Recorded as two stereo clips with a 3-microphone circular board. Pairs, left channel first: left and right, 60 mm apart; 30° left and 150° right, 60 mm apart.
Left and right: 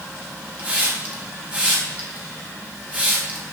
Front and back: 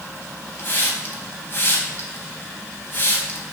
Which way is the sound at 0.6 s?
25° right.